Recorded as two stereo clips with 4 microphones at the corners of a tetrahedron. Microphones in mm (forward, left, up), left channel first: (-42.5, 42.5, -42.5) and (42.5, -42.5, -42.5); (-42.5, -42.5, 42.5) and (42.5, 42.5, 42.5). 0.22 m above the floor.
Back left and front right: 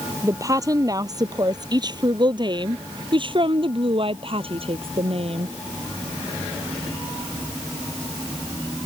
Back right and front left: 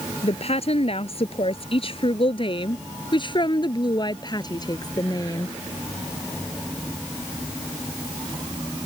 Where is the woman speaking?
105° right; by 5.5 s 75° right.